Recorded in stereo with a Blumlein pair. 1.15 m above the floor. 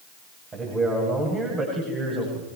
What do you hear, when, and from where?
0.5 s a man speaking: 20° right, 7.5 m